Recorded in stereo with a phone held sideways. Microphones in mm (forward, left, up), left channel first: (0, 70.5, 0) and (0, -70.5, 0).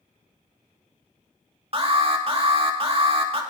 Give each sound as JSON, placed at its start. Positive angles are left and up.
{"t": 1.7, "sound": "an alarm", "side_deg": -45, "distance_m": 2.0}